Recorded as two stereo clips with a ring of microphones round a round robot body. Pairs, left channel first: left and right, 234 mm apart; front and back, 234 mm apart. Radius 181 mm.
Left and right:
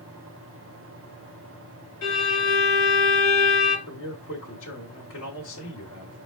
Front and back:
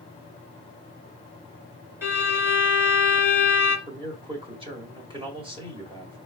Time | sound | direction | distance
2.0 | a violin | 100° left | 1.9 m
3.9 | a man speaking | 115° left | 1.9 m